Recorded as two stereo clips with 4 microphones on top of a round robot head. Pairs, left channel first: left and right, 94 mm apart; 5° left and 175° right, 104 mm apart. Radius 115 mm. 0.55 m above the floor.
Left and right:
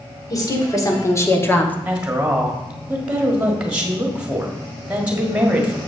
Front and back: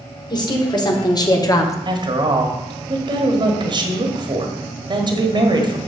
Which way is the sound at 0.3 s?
45° left.